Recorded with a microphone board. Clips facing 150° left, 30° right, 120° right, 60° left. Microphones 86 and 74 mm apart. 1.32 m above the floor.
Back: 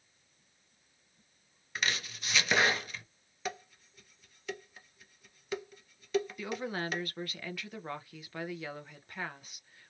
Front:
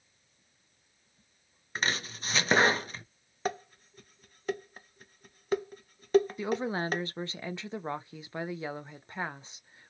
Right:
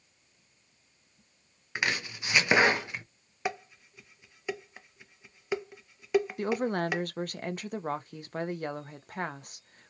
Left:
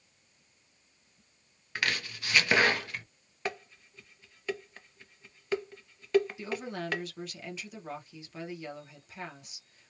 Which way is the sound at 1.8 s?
60° right.